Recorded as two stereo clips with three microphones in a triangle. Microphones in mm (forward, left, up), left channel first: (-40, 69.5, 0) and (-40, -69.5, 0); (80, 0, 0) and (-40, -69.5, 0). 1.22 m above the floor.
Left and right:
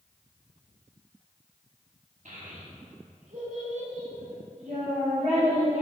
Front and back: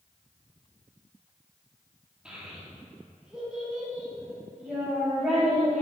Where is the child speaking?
65° right, 1.7 m.